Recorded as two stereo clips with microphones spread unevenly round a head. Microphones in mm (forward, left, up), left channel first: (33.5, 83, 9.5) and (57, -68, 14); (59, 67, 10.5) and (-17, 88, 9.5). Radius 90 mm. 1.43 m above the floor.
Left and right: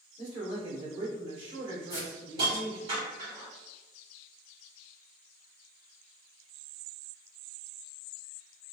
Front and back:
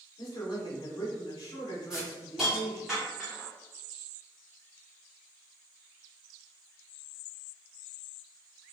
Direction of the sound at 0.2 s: 30° right.